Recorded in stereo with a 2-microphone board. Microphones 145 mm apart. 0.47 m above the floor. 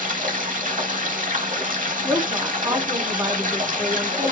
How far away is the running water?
About 0.8 m.